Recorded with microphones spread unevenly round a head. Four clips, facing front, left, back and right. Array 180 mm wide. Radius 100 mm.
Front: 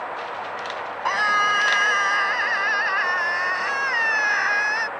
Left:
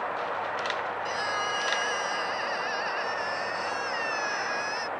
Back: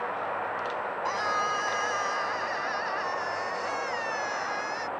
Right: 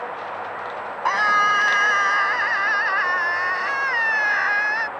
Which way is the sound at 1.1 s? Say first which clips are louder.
Right 11 dB, front 9 dB; 55° right.